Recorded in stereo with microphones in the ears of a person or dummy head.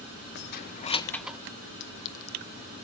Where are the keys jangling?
60° left (ahead or behind), 0.7 m; by 1.4 s 10° right (ahead or behind), 0.5 m.